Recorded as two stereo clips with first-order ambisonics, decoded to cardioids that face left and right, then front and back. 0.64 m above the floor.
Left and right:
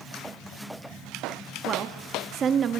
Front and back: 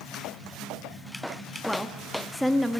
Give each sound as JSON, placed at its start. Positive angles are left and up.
{"t": 1.6, "sound": "a woman speaking", "azimuth_deg": -90, "distance_m": 0.8}